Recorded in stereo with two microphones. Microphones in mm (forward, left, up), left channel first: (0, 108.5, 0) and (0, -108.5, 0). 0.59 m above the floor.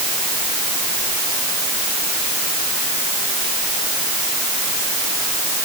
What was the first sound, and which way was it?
Only background noise.